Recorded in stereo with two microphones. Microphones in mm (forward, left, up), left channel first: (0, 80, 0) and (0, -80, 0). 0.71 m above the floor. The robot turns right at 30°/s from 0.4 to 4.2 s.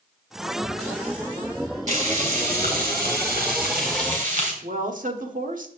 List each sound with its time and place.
1.9 s frying: 130° right, 3 m; by 4.5 s 60° right, 3 m
4.6 s a woman speaking: 60° right (ahead or behind), 1.4 m